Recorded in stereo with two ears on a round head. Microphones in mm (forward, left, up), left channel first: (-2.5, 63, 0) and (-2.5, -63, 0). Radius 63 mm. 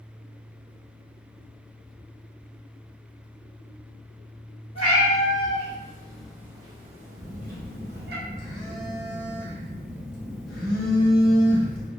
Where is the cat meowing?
40° left (ahead or behind), 1.1 m; by 8.2 s 80° right, 0.9 m.